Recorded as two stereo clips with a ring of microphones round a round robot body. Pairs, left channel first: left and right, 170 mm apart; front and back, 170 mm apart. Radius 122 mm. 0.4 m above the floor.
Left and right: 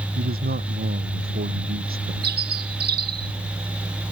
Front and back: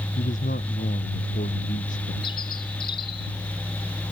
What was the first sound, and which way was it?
A man speaking, 60° right.